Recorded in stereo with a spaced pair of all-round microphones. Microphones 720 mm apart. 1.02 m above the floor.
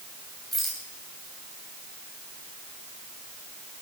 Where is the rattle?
Centre (ahead or behind), 6.5 m.